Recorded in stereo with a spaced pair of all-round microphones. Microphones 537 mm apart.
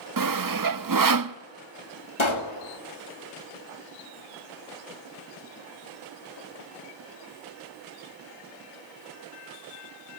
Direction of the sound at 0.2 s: 40° right (ahead or behind).